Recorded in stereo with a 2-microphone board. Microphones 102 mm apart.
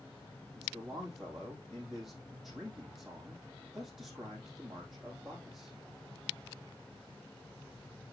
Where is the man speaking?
5° right (ahead or behind), 4 m.